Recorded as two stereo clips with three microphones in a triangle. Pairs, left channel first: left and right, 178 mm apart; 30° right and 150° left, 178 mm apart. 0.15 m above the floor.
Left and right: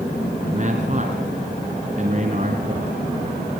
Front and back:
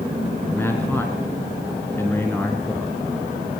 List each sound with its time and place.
0.5 s a man speaking: 100° right, 2.5 m